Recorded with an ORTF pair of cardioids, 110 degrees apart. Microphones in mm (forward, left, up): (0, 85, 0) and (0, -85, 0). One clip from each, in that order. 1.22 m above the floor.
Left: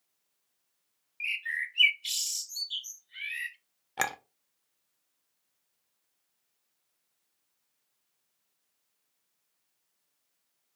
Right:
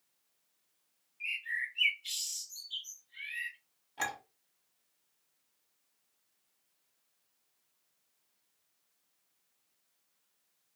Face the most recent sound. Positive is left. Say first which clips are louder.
# left 5 dB
turn(degrees=65)